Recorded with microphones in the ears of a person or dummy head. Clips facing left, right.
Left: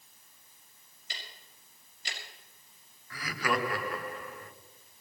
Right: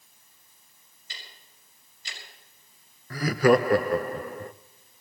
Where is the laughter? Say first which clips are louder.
Right 13 dB; 30° right (ahead or behind), 0.6 m.